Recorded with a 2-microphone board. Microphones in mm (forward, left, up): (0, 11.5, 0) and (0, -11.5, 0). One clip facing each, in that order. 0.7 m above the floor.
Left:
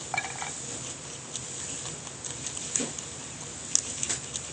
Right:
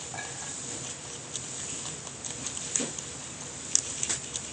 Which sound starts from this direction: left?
A clink, at 0.1 s.